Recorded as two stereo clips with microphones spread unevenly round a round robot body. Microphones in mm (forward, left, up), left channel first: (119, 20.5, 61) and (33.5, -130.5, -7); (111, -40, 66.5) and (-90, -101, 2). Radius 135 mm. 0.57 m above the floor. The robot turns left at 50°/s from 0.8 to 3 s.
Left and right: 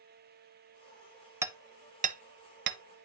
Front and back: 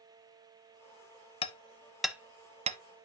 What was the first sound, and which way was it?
Hammering, 35° right.